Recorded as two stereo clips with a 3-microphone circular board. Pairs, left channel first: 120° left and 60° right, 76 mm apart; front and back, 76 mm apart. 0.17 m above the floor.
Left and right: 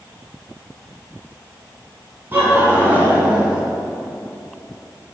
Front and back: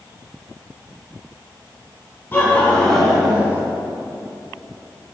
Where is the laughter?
25° right, 1.3 m; by 3.6 s 130° right, 1.4 m.